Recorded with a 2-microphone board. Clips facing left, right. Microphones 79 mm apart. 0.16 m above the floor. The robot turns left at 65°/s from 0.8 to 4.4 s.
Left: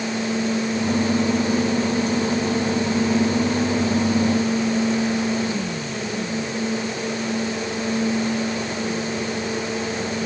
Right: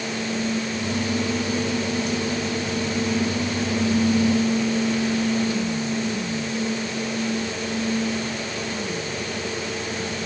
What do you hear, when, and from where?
Only background noise.